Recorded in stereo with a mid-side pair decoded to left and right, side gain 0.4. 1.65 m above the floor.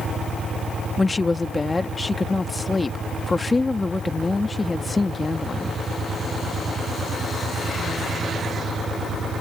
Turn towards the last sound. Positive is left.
turn(degrees=25)